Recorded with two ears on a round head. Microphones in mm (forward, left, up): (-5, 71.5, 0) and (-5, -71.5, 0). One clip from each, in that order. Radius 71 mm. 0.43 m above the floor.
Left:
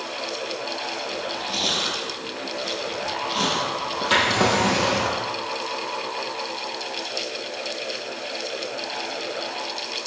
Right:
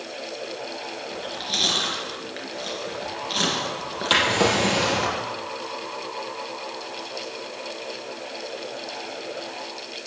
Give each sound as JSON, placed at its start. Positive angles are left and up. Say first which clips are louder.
{"t": 1.1, "sound": "chewing", "louder": "right 4 dB", "side_deg": -65, "distance_m": 4.0}
{"t": 4.1, "sound": "a drawer", "louder": "even", "side_deg": -30, "distance_m": 3.0}